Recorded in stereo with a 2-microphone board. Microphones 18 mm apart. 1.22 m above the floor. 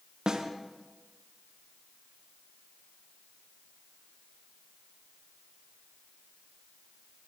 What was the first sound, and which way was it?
A snare drum, 40° right (ahead or behind).